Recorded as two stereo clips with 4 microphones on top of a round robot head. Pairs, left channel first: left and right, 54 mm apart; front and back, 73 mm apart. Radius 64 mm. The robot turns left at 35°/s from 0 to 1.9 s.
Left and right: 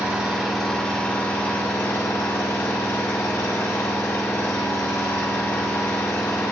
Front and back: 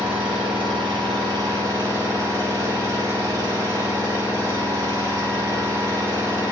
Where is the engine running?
160° right, 1.7 m; by 6.5 s 135° left, 1.7 m.